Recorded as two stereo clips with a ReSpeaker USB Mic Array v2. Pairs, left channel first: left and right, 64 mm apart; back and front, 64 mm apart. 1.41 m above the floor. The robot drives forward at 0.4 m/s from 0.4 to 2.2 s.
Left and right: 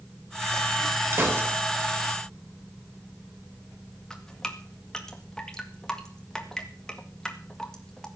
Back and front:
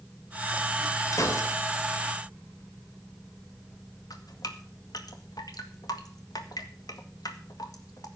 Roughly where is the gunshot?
Behind right.